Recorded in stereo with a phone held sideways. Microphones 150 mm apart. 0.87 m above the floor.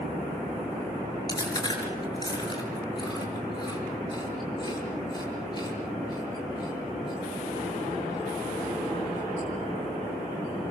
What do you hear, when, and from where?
1.3 s chewing: 30° left (ahead or behind), 6 m